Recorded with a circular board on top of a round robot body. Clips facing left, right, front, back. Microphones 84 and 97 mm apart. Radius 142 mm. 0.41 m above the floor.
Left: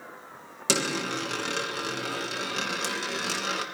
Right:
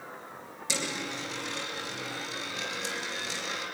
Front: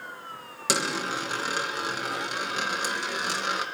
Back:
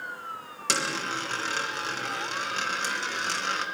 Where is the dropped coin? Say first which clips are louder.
Left 7 dB, front 2 dB; 80° left, 3 m.